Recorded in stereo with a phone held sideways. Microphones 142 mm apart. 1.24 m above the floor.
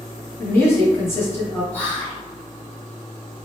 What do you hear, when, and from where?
0.4 s a woman speaking: 15° left (ahead or behind), 1.3 m
1.7 s whispering: 10° left (ahead or behind), 1.4 m